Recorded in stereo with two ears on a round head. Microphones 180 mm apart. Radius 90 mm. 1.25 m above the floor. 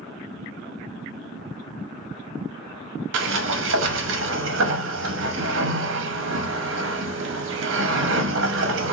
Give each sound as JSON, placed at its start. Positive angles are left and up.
{"t": 3.1, "sound": "a sliding door", "side_deg": -65, "distance_m": 0.6}